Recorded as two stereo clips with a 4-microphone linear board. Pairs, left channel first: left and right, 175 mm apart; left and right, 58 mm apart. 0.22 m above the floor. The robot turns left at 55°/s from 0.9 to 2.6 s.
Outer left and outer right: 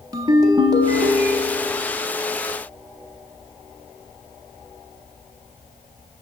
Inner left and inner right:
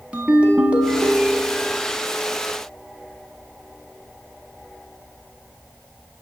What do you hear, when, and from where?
0.1 s a ringtone: 150° right, 0.8 m; by 1.9 s 155° left, 0.8 m